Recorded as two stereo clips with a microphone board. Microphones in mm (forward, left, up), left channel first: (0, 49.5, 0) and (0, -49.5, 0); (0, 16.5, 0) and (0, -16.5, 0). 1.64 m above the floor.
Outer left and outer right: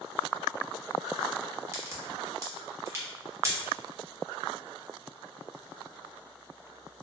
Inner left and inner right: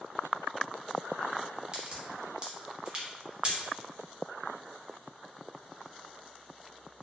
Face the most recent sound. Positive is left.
turn(degrees=-30)  # may be behind; listen again after turning